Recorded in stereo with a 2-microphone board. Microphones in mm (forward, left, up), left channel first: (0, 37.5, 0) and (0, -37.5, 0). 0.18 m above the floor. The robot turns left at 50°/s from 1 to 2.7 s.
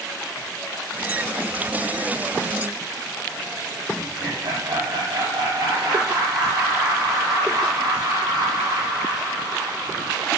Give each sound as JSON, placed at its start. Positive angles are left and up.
{"t": 4.0, "sound": "laughter", "side_deg": -75, "distance_m": 4.5}